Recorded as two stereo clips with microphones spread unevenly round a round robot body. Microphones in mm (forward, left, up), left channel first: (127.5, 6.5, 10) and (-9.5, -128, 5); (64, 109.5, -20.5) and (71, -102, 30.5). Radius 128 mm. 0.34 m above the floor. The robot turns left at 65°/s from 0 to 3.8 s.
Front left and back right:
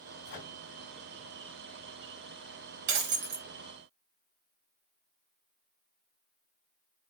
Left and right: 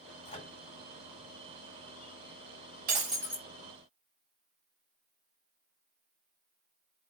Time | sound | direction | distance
0.2 | a microwave | 50° left | 2.5 m
2.9 | breaking glass | 150° right | 1.2 m